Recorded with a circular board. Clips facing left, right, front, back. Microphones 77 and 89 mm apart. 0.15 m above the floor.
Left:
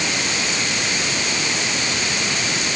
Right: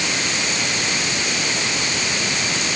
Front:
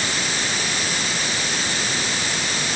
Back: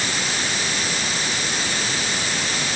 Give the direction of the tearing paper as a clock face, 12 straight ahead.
I don't hear tearing paper.